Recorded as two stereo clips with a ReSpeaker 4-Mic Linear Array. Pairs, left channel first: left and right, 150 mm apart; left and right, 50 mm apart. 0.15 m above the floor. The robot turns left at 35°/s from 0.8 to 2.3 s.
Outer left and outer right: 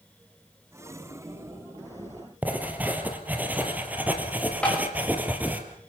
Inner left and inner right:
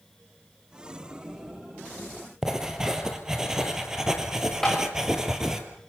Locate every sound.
2.4 s writing: 10° right (ahead or behind), 3 m
4.6 s tapping: 10° left (ahead or behind), 7.5 m